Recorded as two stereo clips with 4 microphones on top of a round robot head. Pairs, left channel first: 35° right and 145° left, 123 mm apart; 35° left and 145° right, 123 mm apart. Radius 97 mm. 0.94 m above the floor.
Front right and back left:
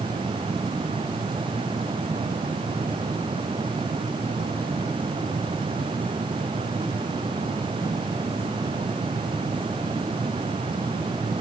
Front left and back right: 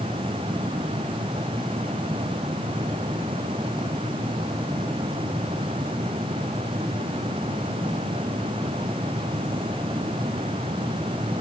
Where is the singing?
No singing in this recording.